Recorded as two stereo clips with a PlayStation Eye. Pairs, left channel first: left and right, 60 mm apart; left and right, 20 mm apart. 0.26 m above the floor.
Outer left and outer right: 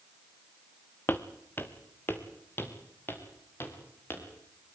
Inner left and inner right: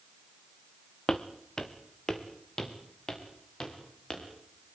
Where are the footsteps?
35° left (ahead or behind), 1.5 m; by 4.2 s 40° left (ahead or behind), 6 m.